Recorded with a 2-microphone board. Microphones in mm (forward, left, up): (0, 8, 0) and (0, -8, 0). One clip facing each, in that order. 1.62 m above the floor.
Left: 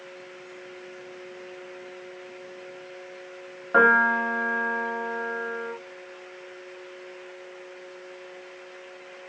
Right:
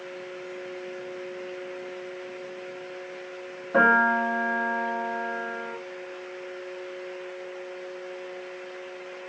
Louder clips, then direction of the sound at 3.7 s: Left 1 dB; 50° left (ahead or behind).